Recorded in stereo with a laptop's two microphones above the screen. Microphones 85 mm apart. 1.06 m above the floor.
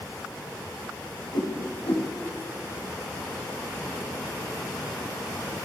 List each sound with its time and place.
1.3 s a whoosh: 85° left, 1.2 m